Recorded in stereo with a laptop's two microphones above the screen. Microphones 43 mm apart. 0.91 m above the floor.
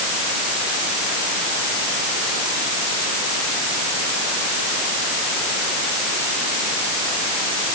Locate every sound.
Only background noise.